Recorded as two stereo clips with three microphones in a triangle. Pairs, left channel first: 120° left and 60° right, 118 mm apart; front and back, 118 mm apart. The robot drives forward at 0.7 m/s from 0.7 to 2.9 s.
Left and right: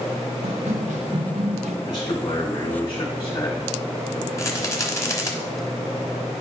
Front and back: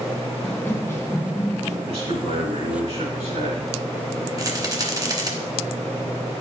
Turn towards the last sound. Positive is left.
turn(degrees=160)